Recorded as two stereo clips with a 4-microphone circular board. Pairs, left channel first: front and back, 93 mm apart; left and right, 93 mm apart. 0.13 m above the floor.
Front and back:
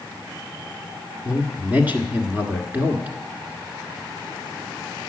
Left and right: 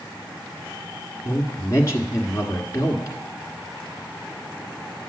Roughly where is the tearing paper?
No tearing paper in this recording.